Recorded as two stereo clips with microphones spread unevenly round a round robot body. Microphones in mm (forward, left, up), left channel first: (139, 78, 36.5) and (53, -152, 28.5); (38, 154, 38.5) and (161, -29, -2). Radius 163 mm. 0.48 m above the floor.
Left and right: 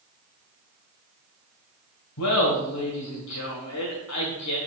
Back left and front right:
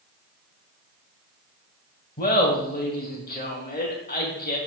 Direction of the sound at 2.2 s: 70° left.